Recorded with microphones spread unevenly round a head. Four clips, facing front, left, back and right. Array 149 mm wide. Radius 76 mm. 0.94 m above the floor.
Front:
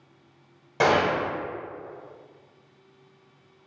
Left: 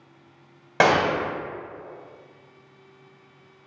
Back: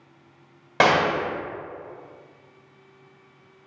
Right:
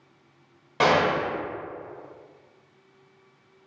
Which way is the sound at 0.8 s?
130° left.